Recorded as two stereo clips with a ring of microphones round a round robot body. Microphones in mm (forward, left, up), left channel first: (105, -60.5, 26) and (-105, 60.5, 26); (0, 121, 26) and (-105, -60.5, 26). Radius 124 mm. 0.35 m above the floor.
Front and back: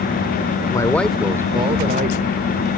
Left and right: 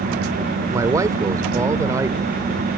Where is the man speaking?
70° right; by 2.7 s 165° left.